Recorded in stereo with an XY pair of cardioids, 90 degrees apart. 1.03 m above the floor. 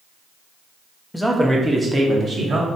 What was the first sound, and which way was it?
A man speaking, 5° left.